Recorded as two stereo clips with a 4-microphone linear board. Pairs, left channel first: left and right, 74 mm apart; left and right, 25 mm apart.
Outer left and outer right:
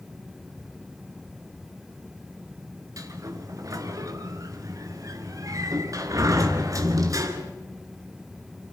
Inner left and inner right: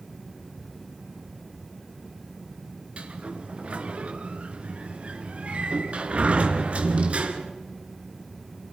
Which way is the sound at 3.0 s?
50° right (ahead or behind).